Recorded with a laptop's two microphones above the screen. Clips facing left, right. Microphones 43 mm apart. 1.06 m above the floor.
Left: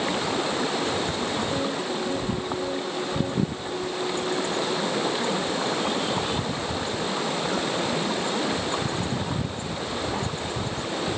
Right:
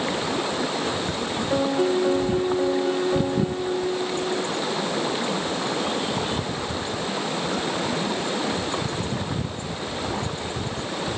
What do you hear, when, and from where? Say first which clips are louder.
1.5 s a piano: right 6 dB; 50° right (ahead or behind), 1.3 m